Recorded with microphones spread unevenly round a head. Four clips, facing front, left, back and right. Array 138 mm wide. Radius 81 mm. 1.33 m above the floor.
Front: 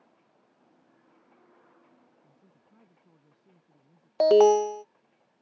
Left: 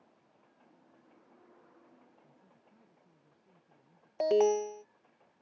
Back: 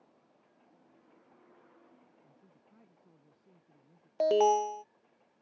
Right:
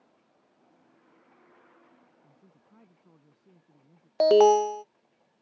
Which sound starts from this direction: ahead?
An alarm, at 4.2 s.